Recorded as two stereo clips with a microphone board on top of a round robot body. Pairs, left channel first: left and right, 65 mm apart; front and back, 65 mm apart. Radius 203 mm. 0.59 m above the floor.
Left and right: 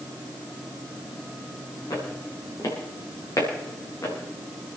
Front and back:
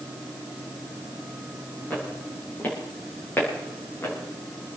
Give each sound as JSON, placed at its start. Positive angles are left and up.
{"t": 1.9, "sound": "footsteps", "azimuth_deg": 65, "distance_m": 6.5}